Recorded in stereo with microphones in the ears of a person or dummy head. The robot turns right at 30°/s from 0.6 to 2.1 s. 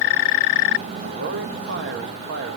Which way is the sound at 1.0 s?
120° right.